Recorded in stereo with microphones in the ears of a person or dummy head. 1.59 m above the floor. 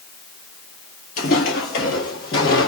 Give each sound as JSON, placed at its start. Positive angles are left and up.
{"t": 1.2, "sound": "footsteps", "side_deg": 30, "distance_m": 1.8}